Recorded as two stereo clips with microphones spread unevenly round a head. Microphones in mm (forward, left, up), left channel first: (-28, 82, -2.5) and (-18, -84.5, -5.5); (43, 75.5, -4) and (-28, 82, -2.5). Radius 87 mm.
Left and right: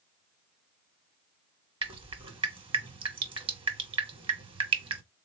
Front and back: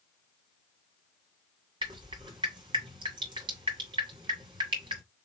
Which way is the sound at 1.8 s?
145° right.